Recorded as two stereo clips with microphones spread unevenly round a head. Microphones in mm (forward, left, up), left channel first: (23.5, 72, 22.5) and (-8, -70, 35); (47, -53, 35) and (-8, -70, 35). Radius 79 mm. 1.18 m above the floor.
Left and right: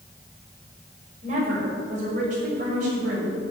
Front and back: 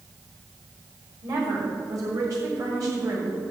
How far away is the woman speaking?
About 5.5 m.